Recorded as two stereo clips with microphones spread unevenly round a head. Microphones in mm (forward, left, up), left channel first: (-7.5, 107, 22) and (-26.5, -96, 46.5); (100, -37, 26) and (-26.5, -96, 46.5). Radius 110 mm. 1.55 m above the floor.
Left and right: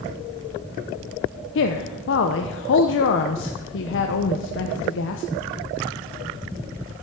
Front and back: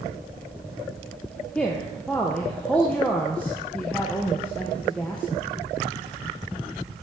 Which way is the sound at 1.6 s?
115° left.